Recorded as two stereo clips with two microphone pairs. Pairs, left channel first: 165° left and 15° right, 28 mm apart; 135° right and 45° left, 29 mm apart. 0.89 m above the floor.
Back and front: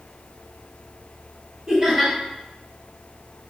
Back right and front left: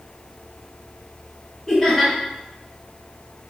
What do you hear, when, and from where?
1.7 s laughter: 45° right, 1.0 m